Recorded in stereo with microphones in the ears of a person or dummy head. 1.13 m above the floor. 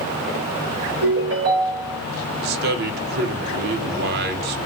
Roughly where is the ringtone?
Right.